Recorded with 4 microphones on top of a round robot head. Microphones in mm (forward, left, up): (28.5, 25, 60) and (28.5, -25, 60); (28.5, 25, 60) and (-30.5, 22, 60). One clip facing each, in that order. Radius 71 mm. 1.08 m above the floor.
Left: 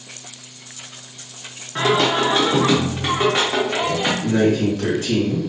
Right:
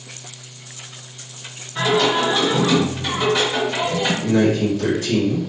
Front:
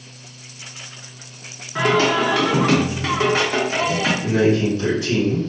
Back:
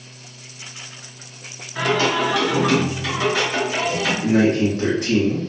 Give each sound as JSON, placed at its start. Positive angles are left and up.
{"t": 1.8, "sound": "singing", "azimuth_deg": 50, "distance_m": 0.6}
{"t": 4.2, "sound": "a man speaking", "azimuth_deg": 150, "distance_m": 1.5}